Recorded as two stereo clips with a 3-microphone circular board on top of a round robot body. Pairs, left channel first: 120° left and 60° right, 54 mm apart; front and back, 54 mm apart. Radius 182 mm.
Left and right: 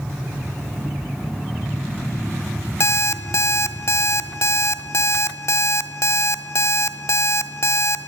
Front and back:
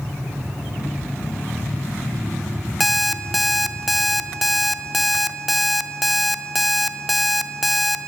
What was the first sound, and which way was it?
An alarm clock, 90° left.